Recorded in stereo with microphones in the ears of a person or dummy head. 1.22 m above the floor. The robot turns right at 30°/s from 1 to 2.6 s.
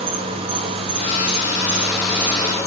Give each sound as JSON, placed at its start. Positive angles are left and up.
{"t": 0.0, "sound": "an insect", "azimuth_deg": -25, "distance_m": 1.8}